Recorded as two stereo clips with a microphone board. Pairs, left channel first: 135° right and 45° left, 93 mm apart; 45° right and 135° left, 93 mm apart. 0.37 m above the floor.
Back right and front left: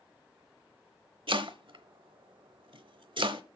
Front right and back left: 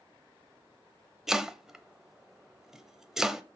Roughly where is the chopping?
Ahead left.